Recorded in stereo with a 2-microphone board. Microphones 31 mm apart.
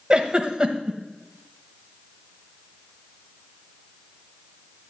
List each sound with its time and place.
0.1 s a giggle: 30° right (ahead or behind), 1.1 m